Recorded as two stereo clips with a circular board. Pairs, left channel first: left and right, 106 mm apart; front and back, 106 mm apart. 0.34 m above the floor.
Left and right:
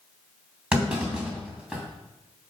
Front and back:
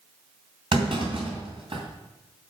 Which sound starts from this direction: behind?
A clunk, at 0.7 s.